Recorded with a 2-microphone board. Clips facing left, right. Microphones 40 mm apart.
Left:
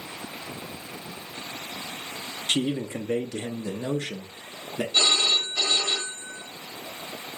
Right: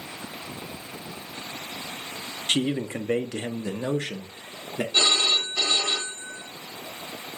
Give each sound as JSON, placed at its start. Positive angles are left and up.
{"t": 2.5, "sound": "a man speaking", "side_deg": -35, "distance_m": 0.7}
{"t": 4.9, "sound": "a phone ringing", "side_deg": -30, "distance_m": 1.0}